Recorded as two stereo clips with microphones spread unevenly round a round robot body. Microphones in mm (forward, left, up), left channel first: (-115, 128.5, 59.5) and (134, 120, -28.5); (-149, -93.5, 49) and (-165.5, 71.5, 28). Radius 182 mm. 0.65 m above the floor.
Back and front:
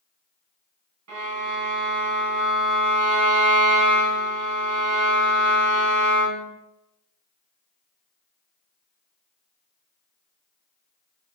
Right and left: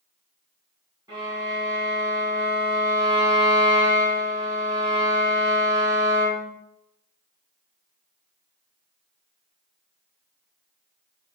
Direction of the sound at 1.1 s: 15° left.